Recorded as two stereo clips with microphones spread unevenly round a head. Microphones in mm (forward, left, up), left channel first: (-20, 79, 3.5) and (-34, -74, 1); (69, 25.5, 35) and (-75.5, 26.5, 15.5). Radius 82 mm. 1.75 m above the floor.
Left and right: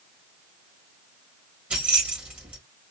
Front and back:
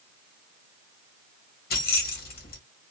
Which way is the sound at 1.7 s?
15° right.